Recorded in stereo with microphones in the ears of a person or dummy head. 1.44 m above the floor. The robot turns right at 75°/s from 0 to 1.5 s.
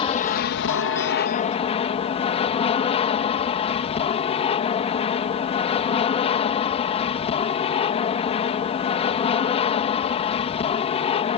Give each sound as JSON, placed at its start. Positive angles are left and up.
{"t": 0.0, "sound": "an aircraft", "azimuth_deg": 30}